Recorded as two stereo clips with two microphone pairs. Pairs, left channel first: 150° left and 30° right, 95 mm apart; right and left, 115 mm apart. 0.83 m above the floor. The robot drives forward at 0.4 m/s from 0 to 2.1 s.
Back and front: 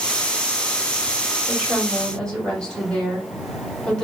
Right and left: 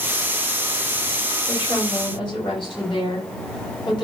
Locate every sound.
1.5 s a woman speaking: 125° right, 1.7 m; by 4.0 s 130° right, 1.9 m